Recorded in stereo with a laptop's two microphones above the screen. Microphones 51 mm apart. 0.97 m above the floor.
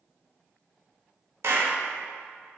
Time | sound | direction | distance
1.4 | a clap | 60° right (ahead or behind) | 1.1 m